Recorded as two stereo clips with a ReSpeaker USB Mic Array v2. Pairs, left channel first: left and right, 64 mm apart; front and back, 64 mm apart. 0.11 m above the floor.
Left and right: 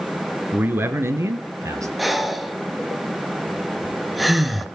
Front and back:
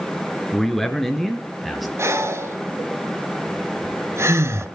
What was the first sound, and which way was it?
A man speaking, 75° right.